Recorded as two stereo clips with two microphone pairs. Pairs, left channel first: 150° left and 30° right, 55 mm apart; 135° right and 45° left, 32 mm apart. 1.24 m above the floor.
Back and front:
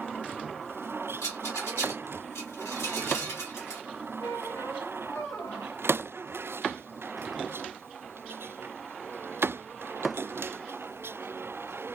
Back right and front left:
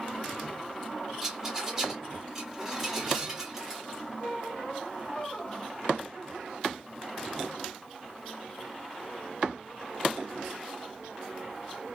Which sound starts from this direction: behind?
A squeak, at 4.2 s.